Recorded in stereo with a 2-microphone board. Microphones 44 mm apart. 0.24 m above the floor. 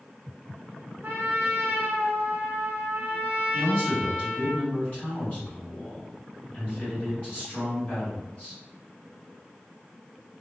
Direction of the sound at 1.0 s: 55° right (ahead or behind).